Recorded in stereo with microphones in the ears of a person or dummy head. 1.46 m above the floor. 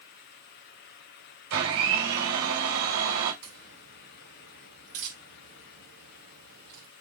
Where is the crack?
75° right (ahead or behind), 5.5 m.